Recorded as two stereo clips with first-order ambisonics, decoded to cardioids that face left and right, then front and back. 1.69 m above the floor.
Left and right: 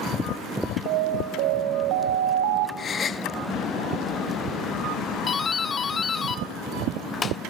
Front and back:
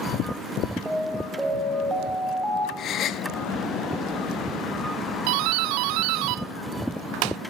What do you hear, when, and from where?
0.9 s an alarm: 90° right, 4 m
2.8 s a gasp: 35° left, 0.6 m
5.3 s a doorbell: 160° left, 0.6 m